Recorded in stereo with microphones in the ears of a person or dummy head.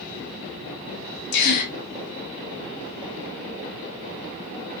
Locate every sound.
1.3 s a gasp: 65° left (ahead or behind), 1.4 m